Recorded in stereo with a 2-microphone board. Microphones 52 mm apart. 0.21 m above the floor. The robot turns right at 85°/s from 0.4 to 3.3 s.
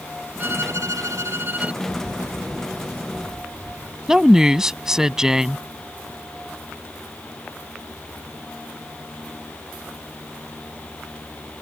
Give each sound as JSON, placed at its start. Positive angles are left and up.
{"t": 0.4, "sound": "a violin", "azimuth_deg": -135}
{"t": 1.8, "sound": "a bird", "azimuth_deg": 115}
{"t": 4.1, "sound": "a woman speaking", "side_deg": -10}